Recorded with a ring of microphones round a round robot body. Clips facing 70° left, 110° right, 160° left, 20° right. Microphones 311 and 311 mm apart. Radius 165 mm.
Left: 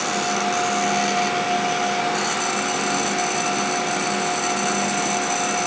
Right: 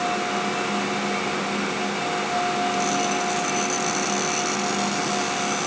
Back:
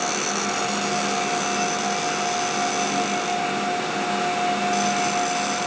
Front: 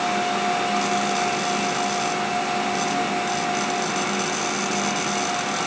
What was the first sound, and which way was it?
Only background noise.